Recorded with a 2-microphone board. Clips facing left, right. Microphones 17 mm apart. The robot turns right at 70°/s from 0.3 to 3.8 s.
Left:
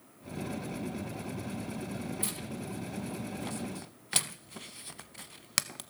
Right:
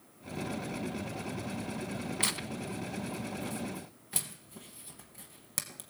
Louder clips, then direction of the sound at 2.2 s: Right 4 dB; 55° right (ahead or behind).